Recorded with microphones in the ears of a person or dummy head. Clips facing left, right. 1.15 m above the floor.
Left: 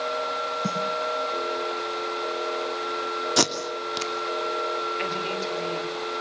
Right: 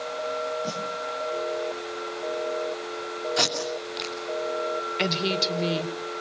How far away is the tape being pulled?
About 2.5 m.